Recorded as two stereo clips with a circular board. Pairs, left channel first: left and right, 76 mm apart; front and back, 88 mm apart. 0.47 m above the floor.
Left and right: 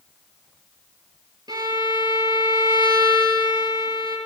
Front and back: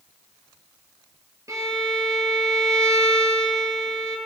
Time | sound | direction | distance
1.5 | a violin | 125° right | 5.5 m